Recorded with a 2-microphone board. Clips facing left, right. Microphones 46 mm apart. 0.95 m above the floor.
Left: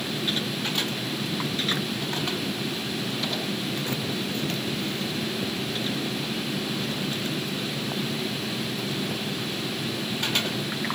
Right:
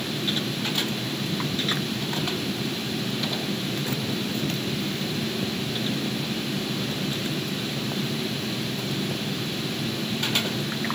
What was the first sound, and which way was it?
Only background noise.